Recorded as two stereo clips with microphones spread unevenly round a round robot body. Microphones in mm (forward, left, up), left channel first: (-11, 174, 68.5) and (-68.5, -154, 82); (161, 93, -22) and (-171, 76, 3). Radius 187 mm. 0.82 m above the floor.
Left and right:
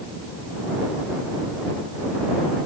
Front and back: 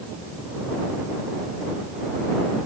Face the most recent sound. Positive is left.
No sound to turn to.